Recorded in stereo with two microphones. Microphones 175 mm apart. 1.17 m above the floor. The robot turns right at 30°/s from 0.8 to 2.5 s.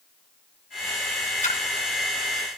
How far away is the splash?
About 3 m.